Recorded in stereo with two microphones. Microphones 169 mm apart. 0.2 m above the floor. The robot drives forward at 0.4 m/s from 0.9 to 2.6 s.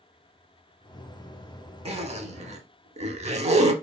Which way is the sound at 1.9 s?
35° right (ahead or behind).